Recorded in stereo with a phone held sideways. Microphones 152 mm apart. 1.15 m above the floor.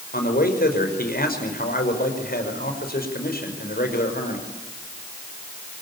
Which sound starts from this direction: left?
A man speaking, at 0.1 s.